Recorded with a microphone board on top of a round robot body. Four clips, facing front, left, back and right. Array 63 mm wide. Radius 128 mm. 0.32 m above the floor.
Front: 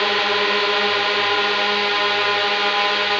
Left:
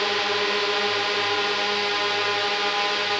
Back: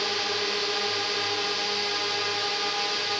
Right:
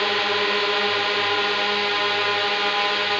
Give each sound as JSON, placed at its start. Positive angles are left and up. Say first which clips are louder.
{"t": 0.0, "sound": "a drone", "louder": "right 2 dB, front 10 dB", "azimuth_deg": -15}